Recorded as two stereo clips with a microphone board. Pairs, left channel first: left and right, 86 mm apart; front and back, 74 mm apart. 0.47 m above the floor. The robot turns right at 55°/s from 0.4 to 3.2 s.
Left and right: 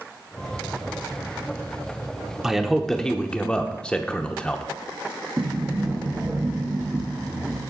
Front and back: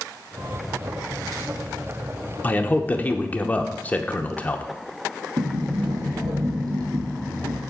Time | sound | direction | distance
2.4 | a man speaking | 15° right | 0.7 m
5.4 | a sliding door | 155° right | 3 m